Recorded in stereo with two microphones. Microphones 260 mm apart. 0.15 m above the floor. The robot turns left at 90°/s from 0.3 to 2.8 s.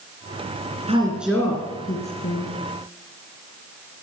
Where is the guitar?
No guitar in this recording.